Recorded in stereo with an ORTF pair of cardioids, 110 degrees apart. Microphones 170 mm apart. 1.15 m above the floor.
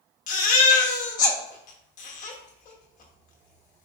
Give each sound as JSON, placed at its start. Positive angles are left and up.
{"t": 0.3, "sound": "a baby crying", "azimuth_deg": 50, "distance_m": 1.2}